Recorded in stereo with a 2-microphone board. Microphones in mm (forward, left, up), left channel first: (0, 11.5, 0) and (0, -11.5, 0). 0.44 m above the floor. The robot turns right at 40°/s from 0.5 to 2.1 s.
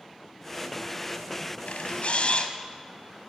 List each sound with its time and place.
1.7 s a camera shutter: 80° left, 1.1 m; by 2.5 s 65° left (ahead or behind), 1.1 m